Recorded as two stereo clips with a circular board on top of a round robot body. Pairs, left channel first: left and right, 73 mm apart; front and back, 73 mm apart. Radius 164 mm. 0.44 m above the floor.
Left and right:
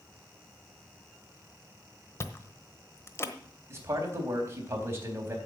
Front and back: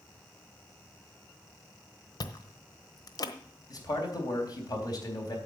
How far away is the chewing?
About 1.1 m.